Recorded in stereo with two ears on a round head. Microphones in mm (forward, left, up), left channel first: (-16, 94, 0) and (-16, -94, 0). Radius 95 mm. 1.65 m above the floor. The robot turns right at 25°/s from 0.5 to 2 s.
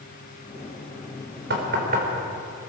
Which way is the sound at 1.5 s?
50° right (ahead or behind).